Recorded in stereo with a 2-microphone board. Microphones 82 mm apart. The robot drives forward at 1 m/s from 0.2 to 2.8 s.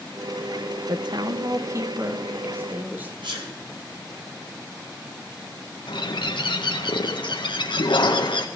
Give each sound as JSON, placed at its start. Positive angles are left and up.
{"t": 0.9, "sound": "a woman speaking", "side_deg": -65, "distance_m": 0.9}
{"t": 3.2, "sound": "a sneeze", "side_deg": -75, "distance_m": 8.0}
{"t": 5.9, "sound": "a bird", "side_deg": 80, "distance_m": 1.7}